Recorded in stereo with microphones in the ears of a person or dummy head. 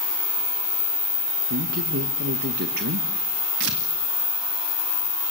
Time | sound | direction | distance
1.5 | a man speaking | 50° right (ahead or behind) | 1.7 m
3.6 | tearing paper | 60° right (ahead or behind) | 1.9 m